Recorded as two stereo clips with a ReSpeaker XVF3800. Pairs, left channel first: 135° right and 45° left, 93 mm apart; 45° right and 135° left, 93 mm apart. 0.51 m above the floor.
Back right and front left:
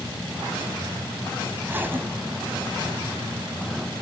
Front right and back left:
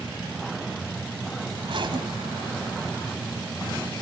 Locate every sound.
1.6 s a zipper: 110° left, 2.5 m